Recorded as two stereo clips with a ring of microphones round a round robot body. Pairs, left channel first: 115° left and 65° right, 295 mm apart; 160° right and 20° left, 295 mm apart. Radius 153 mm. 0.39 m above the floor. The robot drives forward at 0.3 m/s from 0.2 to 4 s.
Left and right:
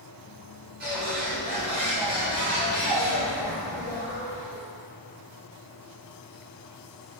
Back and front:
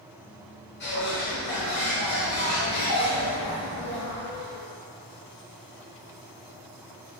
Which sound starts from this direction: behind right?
A bird, at 0.8 s.